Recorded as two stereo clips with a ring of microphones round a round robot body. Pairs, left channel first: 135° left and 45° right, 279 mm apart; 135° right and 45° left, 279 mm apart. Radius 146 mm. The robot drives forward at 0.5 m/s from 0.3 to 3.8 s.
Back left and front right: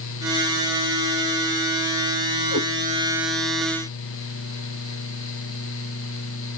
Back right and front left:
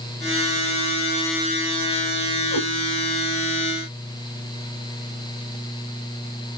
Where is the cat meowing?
110° right, 1.1 m; by 2.7 s 115° right, 1.1 m.